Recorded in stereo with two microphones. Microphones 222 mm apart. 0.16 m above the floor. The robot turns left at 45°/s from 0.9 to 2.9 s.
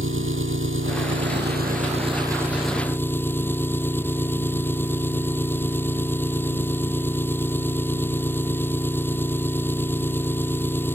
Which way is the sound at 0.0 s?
100° right.